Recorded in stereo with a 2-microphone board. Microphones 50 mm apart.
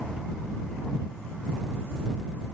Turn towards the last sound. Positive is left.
No sound to turn to.